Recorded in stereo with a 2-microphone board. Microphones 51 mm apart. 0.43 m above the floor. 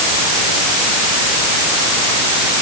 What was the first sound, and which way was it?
Only background noise.